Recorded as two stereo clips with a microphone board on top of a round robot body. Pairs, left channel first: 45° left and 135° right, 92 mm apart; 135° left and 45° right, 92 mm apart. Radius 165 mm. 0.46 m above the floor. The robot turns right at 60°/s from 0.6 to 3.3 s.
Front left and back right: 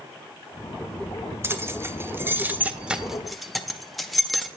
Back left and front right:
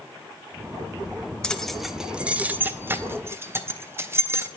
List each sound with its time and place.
1.4 s keys jangling: 155° right, 0.7 m; by 4.5 s 45° right, 0.7 m